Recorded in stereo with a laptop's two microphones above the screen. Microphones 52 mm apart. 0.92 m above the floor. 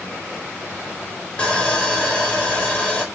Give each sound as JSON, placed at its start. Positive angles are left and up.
{"t": 1.4, "sound": "sawing", "side_deg": 25, "distance_m": 1.2}